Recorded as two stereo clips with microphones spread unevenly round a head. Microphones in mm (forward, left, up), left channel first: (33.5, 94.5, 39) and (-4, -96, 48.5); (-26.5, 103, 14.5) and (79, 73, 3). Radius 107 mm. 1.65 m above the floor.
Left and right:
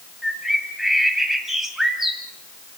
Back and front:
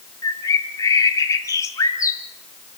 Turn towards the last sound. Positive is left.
turn(degrees=175)